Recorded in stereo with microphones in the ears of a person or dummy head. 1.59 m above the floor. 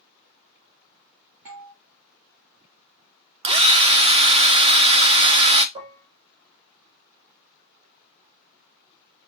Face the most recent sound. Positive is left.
turn(degrees=-30)  # may be behind; listen again after turning